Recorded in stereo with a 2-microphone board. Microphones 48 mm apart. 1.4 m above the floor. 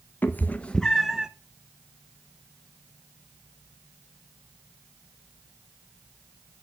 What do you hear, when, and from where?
0.2 s a cat meowing: 40° left (ahead or behind), 0.7 m; by 1.3 s 20° right (ahead or behind), 0.6 m